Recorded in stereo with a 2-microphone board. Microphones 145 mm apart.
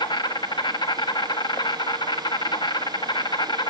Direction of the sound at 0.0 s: 30° left (ahead or behind).